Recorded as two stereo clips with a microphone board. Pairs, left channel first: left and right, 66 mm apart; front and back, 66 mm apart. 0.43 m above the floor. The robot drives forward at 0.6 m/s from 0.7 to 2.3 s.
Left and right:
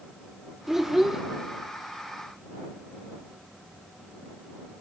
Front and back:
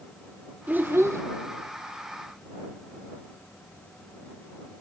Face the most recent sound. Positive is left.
turn(degrees=-175)